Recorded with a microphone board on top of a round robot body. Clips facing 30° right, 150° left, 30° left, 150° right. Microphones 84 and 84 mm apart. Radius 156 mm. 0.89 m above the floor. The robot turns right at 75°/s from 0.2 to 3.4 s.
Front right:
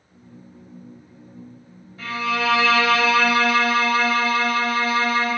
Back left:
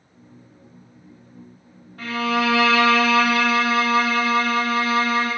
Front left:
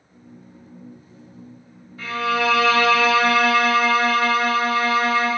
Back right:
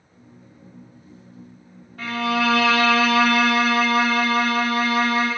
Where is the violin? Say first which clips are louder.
Back left 2 dB, even; straight behind, 1.8 m; by 5.3 s 75° right, 1.8 m.